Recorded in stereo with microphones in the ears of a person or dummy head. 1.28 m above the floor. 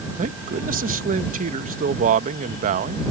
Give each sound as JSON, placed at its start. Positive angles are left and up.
{"t": 0.2, "sound": "a man speaking", "side_deg": -40}